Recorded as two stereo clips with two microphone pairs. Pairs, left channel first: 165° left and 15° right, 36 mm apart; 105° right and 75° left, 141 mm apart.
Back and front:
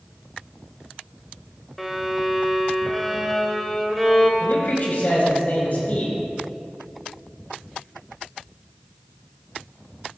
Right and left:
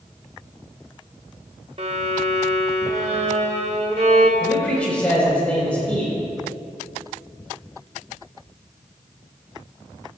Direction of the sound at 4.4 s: Straight behind.